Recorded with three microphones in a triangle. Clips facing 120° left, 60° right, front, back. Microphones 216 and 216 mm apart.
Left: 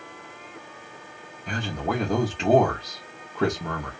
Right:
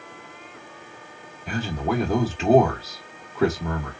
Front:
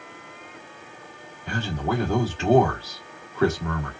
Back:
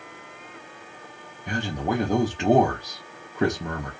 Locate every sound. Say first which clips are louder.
1.5 s a man speaking: right 3 dB, even; 140° right, 0.9 m